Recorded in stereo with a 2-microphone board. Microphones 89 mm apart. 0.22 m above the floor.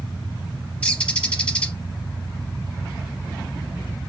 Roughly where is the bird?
Centre.